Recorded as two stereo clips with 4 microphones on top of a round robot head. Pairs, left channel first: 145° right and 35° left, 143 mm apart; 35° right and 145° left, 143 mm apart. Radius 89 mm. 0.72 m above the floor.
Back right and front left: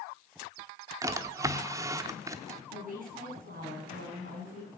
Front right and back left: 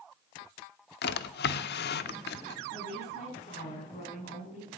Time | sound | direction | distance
1.0 | a drawer | 30° right | 0.7 m
2.7 | a woman speaking | 10° left | 7.5 m